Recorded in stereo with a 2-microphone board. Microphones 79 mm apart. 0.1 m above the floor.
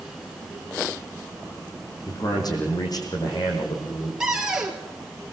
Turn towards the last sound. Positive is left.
turn(degrees=-10)  # may be behind; listen again after turning